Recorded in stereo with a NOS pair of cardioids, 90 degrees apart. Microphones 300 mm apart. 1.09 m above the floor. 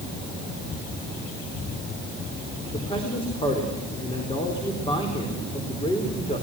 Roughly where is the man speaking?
Ahead.